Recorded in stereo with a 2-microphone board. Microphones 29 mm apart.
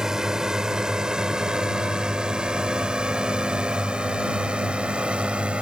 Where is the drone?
25° right (ahead or behind); by 5.6 s 45° right (ahead or behind).